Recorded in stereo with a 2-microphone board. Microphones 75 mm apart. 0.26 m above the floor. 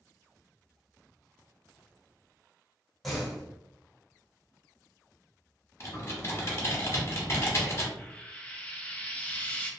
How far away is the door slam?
About 1.3 m.